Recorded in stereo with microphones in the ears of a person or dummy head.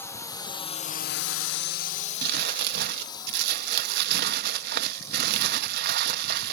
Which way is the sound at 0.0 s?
15° left (ahead or behind).